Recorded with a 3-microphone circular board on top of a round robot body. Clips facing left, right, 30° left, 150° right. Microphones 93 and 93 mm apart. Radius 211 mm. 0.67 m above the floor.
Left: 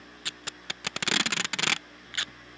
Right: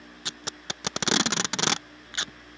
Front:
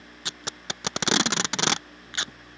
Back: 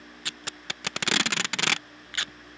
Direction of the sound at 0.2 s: 30° right.